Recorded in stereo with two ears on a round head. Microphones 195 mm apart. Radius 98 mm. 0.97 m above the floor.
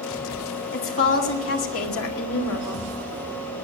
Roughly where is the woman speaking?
Left.